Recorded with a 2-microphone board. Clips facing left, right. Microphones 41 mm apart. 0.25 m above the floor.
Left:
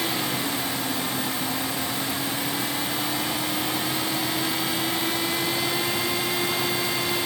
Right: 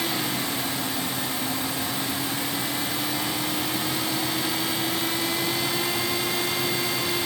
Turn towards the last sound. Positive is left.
No sound to turn to.